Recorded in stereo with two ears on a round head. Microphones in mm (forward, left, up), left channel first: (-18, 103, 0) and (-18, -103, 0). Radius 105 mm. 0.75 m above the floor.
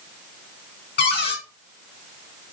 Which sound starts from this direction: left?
A cupboard door, at 1.0 s.